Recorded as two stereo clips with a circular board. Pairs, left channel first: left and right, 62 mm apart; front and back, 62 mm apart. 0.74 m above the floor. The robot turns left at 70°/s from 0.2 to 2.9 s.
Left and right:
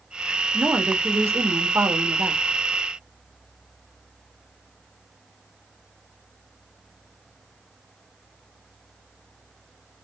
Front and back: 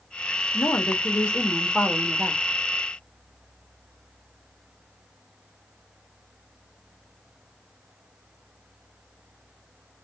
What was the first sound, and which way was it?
A woman speaking, 15° right.